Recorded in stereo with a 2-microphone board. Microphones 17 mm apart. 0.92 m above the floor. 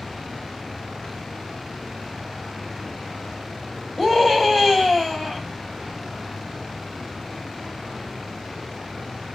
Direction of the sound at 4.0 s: 25° left (ahead or behind).